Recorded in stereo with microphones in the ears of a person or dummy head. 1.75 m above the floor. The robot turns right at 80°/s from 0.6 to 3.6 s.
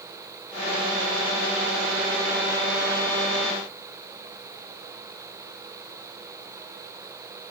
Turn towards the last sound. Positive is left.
No sound to turn to.